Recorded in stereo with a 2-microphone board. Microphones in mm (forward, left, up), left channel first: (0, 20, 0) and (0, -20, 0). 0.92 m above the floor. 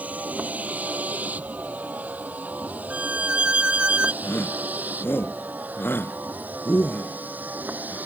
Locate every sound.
0.0 s a vehicle: 45° right (ahead or behind); by 8.1 s 50° right (ahead or behind)
2.9 s a violin: 35° right (ahead or behind)
4.2 s a shout: 85° left